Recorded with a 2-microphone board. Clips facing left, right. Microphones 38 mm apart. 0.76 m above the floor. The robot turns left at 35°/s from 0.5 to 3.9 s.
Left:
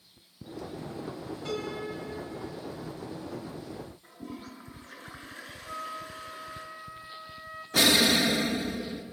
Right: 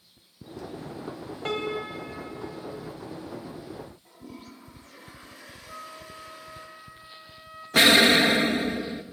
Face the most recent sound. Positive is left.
turn(degrees=-40)  # may be behind; listen again after turning